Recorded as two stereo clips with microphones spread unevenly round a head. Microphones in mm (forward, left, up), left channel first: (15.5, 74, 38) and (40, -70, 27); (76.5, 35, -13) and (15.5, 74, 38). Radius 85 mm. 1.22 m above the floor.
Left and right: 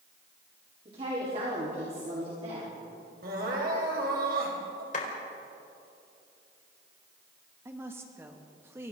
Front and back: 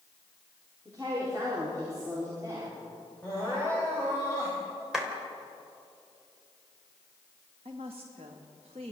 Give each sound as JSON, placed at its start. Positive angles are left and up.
{"t": 0.8, "sound": "a woman speaking", "azimuth_deg": -135, "distance_m": 4.0}
{"t": 3.2, "sound": "crying", "azimuth_deg": -115, "distance_m": 4.5}
{"t": 4.9, "sound": "a clap", "azimuth_deg": 65, "distance_m": 4.0}
{"t": 7.7, "sound": "a woman speaking", "azimuth_deg": -155, "distance_m": 1.9}